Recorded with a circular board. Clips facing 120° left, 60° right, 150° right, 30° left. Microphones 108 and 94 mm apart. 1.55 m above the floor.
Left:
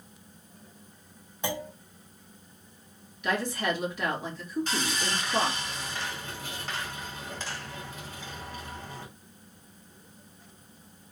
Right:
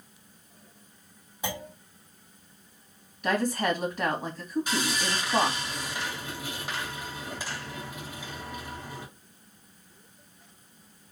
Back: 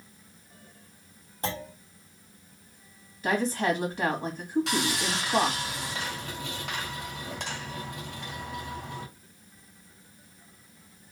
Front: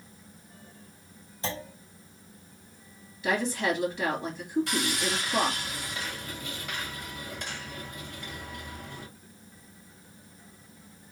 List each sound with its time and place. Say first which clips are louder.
1.4 s a clunk: left 2 dB, back 2 dB; 145° right, 1.6 m
3.2 s a woman speaking: right 3 dB, back 1 dB; 105° right, 1.7 m
4.7 s sawing: right 2 dB, back 1 dB; 140° right, 1.9 m